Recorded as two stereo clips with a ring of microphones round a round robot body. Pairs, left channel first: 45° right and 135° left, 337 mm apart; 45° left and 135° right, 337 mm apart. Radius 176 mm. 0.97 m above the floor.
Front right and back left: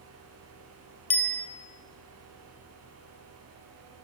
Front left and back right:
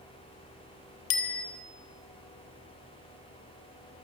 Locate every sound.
1.1 s a bicycle bell: 40° left, 2.5 m